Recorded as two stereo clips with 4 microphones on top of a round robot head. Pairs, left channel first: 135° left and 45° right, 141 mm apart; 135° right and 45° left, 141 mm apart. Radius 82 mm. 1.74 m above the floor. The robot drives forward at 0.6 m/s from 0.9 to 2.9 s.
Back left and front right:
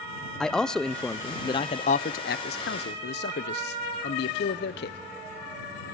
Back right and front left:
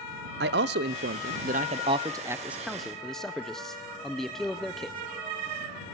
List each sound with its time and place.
0.4 s a man speaking: 50° left, 0.9 m; by 5.0 s 135° left, 1.0 m